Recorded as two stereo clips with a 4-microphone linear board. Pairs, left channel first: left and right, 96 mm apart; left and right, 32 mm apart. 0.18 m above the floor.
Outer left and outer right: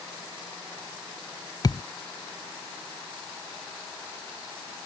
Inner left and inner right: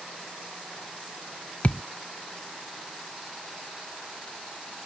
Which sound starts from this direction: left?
A thud, at 1.6 s.